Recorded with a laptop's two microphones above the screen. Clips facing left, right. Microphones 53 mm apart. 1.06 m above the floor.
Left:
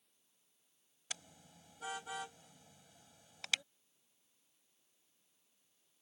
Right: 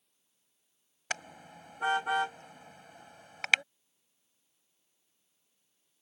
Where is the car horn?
65° right (ahead or behind).